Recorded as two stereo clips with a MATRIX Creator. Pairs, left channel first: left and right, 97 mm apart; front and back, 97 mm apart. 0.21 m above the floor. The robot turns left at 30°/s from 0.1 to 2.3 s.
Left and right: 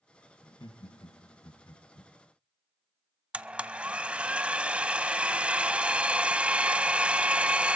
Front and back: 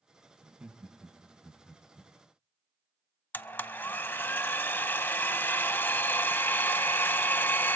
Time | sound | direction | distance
0.4 | laughter | 115° left | 2 m
3.3 | a blender | 35° right | 0.5 m